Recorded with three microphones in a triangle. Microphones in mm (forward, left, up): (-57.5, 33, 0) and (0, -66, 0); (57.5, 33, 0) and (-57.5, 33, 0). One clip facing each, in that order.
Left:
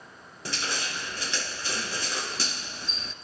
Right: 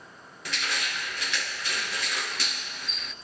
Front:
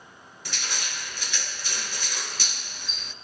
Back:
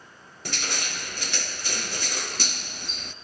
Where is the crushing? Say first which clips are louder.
Even, back 3 dB; 170° left, 1.0 m.